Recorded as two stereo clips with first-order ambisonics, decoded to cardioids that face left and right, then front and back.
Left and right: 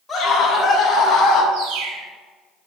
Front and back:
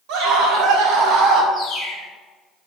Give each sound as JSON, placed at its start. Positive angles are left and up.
{"t": 0.1, "sound": "a scream", "azimuth_deg": 170, "distance_m": 5.0}
{"t": 1.5, "sound": "a bird", "azimuth_deg": -95, "distance_m": 5.5}